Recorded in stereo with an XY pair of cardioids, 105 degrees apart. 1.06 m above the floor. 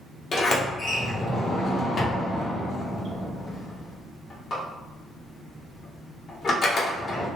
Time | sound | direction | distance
0.3 | a sliding door | 45° left | 1.2 m